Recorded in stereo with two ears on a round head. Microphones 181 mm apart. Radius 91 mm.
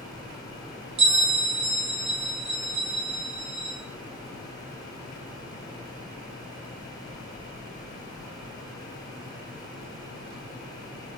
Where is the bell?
30° right (ahead or behind), 1.2 m.